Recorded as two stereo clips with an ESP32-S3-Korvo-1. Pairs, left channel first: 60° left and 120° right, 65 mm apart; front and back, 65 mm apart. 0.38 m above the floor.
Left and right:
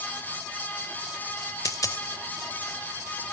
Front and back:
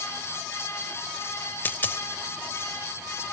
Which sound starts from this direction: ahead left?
A dropped coin, at 1.6 s.